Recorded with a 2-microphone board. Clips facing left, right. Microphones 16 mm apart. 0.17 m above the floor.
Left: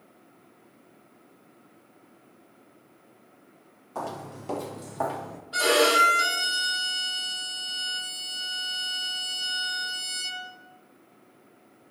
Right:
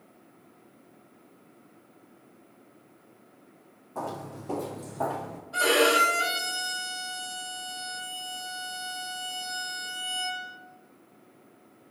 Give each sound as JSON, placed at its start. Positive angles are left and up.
{"t": 4.0, "sound": "footsteps", "side_deg": 70, "distance_m": 2.0}
{"t": 5.5, "sound": "a violin", "side_deg": 60, "distance_m": 3.0}